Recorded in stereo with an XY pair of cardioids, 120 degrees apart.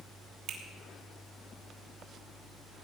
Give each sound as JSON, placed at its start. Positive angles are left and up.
{"t": 0.5, "sound": "a finger snap", "azimuth_deg": -65, "distance_m": 3.0}